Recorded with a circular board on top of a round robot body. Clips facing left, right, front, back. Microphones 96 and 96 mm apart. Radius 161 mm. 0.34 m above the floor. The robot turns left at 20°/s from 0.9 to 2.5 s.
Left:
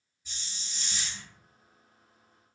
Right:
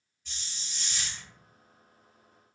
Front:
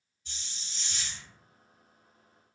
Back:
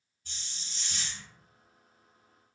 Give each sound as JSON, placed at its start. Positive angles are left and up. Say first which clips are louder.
{"t": 0.2, "sound": "a hiss", "louder": "even, even", "azimuth_deg": 170, "distance_m": 1.9}